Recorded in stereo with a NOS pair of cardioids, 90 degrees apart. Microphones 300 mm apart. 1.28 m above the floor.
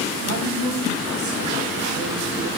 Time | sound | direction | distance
0.2 | a woman speaking | 70° right | 5.5 m